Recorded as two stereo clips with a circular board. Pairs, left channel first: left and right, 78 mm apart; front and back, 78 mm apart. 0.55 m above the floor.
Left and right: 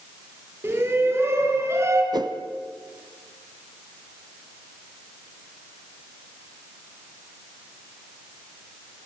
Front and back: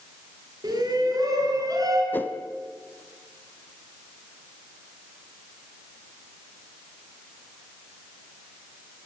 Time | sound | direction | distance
0.6 | a shout | 150° right | 6.5 m
2.1 | a whoosh | 65° right | 1.1 m